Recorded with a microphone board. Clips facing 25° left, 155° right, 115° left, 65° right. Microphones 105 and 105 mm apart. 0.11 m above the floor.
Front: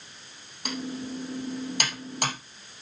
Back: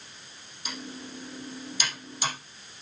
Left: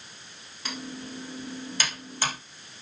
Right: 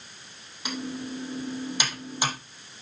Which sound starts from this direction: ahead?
Typing on a keyboard, at 0.7 s.